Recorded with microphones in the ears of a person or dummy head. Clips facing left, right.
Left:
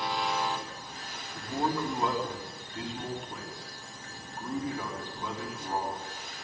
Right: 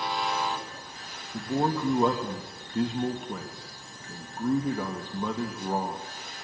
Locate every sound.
1.3 s a man speaking: 45° right (ahead or behind), 3 m